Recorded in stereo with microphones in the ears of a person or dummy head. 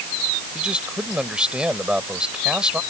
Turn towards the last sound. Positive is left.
turn(degrees=-5)  # may be behind; listen again after turning